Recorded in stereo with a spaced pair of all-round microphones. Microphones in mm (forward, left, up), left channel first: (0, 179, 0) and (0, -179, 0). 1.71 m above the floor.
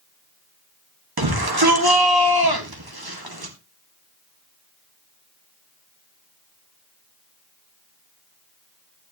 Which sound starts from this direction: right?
A shout, at 1.2 s.